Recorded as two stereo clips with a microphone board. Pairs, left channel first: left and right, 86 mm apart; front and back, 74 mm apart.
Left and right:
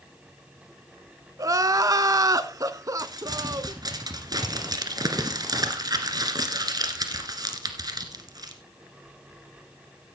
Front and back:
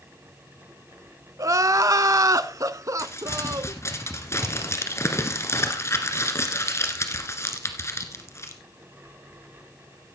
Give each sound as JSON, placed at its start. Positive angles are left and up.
{"t": 1.4, "sound": "crying", "azimuth_deg": -135, "distance_m": 0.5}
{"t": 3.0, "sound": "crumpling", "azimuth_deg": -50, "distance_m": 1.8}